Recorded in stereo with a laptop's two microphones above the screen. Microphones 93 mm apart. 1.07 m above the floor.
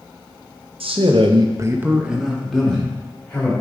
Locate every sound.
0.8 s a man speaking: 85° right, 0.8 m; by 3.5 s 15° left (ahead or behind), 2 m